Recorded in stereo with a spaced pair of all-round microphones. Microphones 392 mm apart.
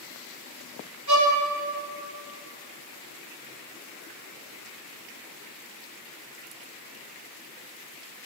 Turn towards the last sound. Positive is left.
turn(degrees=-65)  # may be behind; listen again after turning